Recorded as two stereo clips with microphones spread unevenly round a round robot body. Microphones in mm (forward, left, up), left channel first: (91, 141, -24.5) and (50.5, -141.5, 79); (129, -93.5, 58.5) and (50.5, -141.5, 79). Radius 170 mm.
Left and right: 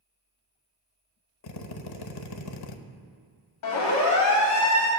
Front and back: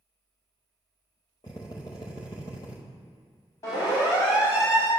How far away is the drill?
About 1.0 m.